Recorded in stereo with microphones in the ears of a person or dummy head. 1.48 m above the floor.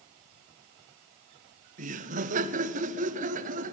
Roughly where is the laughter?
Right.